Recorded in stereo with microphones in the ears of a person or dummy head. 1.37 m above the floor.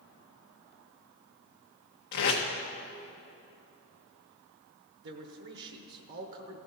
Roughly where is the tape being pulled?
Left.